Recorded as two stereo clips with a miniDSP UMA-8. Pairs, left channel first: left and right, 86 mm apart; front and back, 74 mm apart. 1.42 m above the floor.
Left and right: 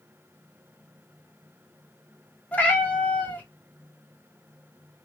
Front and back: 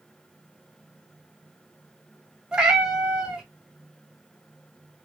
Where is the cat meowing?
125° left, 0.6 m.